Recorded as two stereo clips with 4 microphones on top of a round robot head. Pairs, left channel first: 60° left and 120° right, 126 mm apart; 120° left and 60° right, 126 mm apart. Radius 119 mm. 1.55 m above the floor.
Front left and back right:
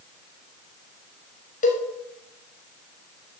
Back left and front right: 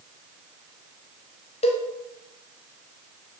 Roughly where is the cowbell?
Left.